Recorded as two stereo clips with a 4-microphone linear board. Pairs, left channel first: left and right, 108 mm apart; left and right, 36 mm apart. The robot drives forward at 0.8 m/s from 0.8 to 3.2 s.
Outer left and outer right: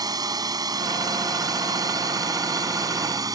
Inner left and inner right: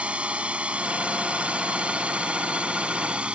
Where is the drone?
35° right (ahead or behind).